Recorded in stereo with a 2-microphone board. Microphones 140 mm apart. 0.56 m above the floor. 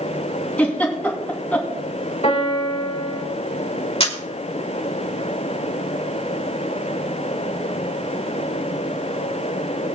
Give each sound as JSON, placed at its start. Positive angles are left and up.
{"t": 0.6, "sound": "a giggle", "side_deg": 10, "distance_m": 3.0}
{"t": 2.2, "sound": "a piano", "side_deg": 50, "distance_m": 3.0}
{"t": 4.0, "sound": "a camera shutter", "side_deg": 45, "distance_m": 2.5}